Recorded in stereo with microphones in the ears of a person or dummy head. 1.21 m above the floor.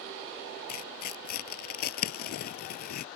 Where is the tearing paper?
55° left (ahead or behind).